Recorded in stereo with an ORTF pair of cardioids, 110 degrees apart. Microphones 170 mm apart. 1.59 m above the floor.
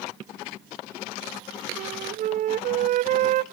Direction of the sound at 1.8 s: 50° right.